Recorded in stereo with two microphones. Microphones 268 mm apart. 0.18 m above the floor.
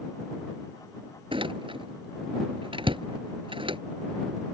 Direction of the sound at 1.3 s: 20° right (ahead or behind).